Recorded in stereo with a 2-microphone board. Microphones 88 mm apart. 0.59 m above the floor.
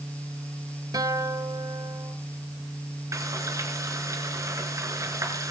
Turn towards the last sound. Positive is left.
turn(degrees=-35)  # may be behind; listen again after turning